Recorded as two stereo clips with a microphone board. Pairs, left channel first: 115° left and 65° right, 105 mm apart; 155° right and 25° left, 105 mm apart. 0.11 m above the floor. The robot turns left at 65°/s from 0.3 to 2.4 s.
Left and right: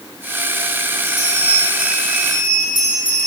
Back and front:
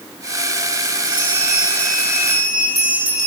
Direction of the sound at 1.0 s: 100° right.